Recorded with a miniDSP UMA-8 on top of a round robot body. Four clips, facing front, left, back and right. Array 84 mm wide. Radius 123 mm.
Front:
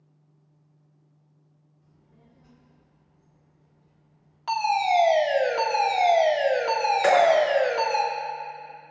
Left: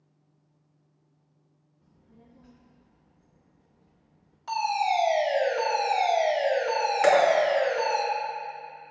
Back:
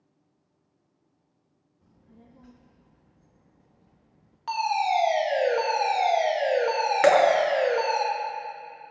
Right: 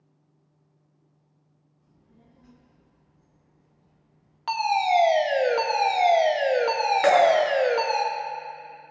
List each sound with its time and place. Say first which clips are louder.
1.8 s a child speaking: left 2 dB, back 5 dB; 170° left, 0.9 m
4.5 s a fire alarm: right 3 dB, front 2 dB; 85° right, 1.7 m
7.0 s dripping: right 2 dB, back 1 dB; 165° right, 2.0 m